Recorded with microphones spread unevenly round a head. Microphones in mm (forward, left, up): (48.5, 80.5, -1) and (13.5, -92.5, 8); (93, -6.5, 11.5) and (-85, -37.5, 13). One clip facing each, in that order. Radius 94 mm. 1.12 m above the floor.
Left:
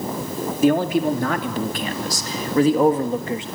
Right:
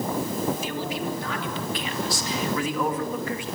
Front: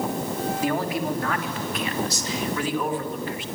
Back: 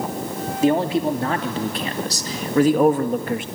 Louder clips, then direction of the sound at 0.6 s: Left 12 dB, back 10 dB; 125° left.